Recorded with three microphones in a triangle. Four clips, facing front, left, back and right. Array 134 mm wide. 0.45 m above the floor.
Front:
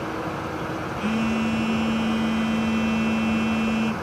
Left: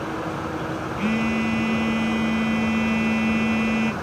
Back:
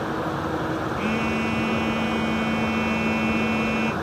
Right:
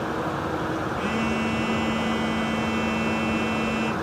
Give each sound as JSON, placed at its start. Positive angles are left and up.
{"t": 1.0, "sound": "a phone buzzing", "azimuth_deg": 120, "distance_m": 1.9}